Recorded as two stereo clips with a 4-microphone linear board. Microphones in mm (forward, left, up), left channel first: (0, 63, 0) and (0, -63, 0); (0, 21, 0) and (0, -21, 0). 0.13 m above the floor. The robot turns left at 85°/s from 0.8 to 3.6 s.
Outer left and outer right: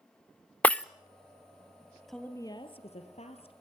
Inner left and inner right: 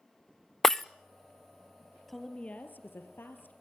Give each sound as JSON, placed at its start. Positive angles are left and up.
{"t": 0.6, "sound": "breaking glass", "side_deg": 10, "distance_m": 0.7}
{"t": 2.1, "sound": "a woman speaking", "azimuth_deg": 180, "distance_m": 3.5}